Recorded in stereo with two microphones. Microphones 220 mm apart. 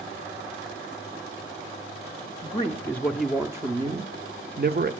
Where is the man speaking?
25° left (ahead or behind), 1.0 m; by 4.9 s 50° right (ahead or behind), 1.2 m.